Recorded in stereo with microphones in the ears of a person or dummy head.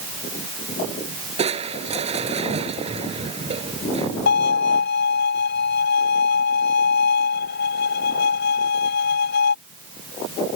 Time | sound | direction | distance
1.4 | crushing | 35° right (ahead or behind) | ?
4.3 | a violin | 65° left (ahead or behind) | ?